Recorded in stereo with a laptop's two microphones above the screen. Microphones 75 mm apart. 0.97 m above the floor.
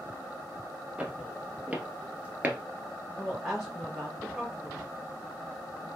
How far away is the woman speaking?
About 0.8 m.